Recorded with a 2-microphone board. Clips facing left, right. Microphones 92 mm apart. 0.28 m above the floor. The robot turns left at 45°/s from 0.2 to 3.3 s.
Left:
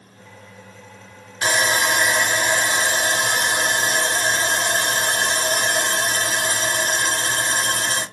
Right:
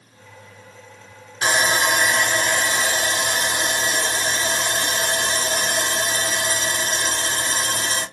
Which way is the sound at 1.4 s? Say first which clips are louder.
Even; 155° right.